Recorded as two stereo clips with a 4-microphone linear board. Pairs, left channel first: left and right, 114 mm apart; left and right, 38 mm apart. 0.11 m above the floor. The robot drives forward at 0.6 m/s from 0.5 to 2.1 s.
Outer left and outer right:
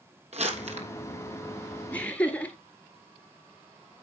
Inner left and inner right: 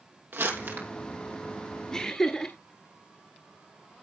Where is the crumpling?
65° right (ahead or behind), 3.5 m; by 0.9 s 70° right (ahead or behind), 3.5 m.